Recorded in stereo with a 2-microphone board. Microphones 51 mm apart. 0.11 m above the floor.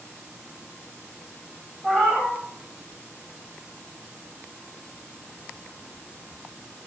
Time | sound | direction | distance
1.8 | a cat meowing | centre (ahead or behind) | 4 m